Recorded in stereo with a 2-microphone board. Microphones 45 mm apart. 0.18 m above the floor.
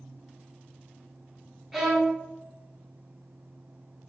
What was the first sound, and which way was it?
A violin, 10° right (ahead or behind).